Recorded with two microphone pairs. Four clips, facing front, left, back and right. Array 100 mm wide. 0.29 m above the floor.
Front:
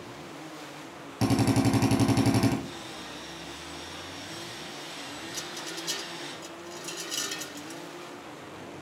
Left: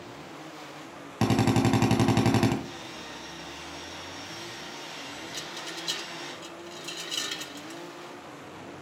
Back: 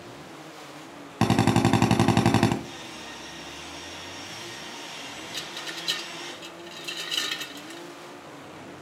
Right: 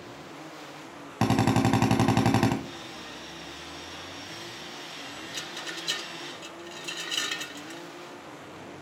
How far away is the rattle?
About 0.8 m.